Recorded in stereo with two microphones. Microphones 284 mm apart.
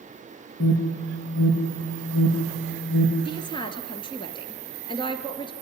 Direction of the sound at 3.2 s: 15° left (ahead or behind).